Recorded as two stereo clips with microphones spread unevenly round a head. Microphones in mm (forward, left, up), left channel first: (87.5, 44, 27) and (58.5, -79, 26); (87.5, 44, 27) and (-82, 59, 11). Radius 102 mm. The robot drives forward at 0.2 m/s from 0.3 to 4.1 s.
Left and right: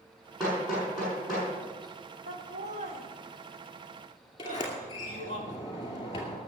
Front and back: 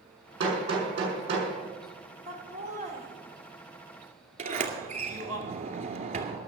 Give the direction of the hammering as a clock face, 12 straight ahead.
6 o'clock.